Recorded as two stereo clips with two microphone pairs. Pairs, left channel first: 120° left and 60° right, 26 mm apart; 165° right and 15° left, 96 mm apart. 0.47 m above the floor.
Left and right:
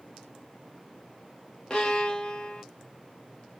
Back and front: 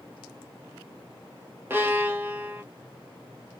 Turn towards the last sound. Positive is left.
turn(degrees=80)